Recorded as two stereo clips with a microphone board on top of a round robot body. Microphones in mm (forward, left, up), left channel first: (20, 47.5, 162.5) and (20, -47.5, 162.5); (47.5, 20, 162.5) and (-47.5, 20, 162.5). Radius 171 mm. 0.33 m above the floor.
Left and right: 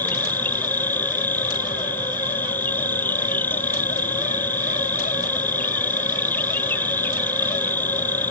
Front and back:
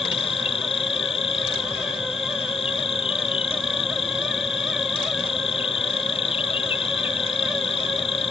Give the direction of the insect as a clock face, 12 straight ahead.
11 o'clock.